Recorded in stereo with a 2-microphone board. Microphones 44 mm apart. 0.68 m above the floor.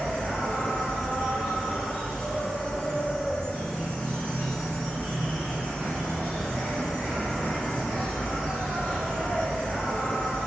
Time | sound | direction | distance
0.0 | an insect | 20° left (ahead or behind) | 1.0 m